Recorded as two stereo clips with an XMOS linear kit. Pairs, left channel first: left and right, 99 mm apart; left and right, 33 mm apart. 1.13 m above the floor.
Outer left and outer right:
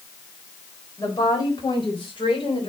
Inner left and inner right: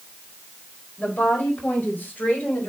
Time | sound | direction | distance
1.0 | a woman speaking | 35° left (ahead or behind) | 4.5 m